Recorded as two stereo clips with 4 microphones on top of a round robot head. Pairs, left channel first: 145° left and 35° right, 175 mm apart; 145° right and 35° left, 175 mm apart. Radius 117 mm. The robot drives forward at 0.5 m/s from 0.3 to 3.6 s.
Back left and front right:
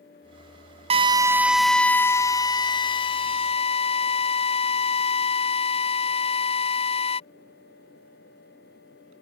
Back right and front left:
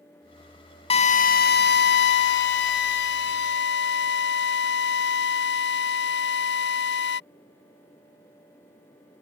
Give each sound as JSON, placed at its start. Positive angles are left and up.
{"t": 0.9, "sound": "a drill", "azimuth_deg": -90}